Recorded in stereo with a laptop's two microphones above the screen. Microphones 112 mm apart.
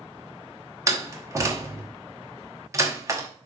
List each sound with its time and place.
0.9 s a door slam: 25° right (ahead or behind), 1.0 m